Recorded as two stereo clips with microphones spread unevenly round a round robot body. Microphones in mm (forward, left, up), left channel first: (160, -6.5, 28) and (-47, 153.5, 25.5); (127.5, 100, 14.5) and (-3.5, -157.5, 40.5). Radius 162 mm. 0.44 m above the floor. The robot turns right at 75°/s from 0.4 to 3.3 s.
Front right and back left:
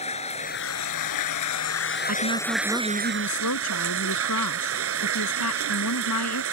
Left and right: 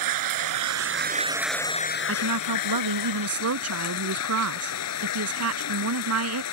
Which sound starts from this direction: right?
Running water, at 0.0 s.